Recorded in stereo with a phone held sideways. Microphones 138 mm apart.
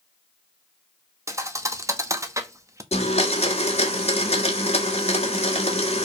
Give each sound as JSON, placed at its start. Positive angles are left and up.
{"t": 1.3, "sound": "a thud", "side_deg": -20, "distance_m": 0.9}
{"t": 2.9, "sound": "a blender", "side_deg": 50, "distance_m": 2.0}